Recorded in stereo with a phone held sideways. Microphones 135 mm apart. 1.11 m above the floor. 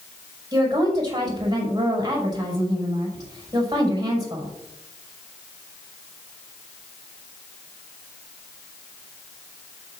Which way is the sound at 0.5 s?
30° right (ahead or behind).